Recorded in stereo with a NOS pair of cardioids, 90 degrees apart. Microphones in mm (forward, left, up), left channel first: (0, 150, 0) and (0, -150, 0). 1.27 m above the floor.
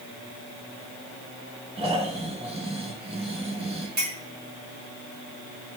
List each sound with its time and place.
1.8 s snoring: 20° right, 1.7 m
4.0 s a clink: 30° right, 3.5 m